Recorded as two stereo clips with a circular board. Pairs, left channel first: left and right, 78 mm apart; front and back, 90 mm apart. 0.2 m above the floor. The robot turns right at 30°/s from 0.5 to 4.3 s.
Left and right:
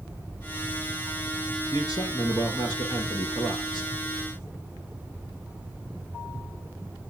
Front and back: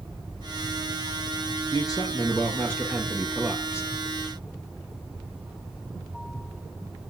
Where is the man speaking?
45° left, 5 m; by 3.9 s 110° left, 5 m.